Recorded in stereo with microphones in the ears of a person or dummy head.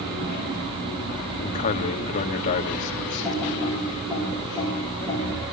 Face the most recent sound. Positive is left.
turn(degrees=-25)  # may be behind; listen again after turning